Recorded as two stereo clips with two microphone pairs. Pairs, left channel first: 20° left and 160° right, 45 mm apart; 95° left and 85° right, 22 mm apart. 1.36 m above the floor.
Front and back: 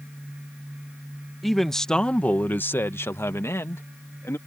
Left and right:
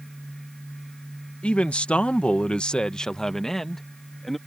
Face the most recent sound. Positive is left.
turn(degrees=10)